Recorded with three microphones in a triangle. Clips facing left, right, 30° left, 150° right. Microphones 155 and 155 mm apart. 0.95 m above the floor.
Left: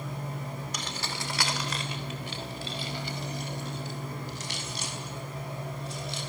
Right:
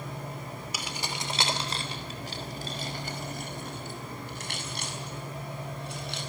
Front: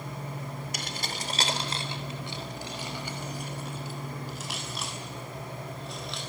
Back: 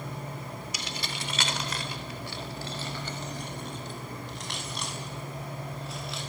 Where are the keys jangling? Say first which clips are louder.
Even, front 1 dB; 5° right, 2.5 m; by 6.2 s 65° right, 8.5 m.